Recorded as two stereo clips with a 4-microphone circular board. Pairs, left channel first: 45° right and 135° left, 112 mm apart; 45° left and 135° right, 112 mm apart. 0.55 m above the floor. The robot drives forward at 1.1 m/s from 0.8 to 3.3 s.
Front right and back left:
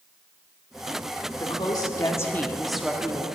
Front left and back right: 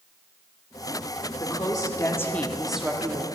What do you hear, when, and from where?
1.4 s a woman speaking: straight ahead, 1.7 m; by 3.3 s 175° right, 1.1 m